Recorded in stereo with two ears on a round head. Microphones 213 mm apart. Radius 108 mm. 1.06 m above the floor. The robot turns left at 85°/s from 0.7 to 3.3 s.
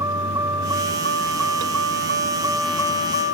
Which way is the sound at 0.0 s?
15° right.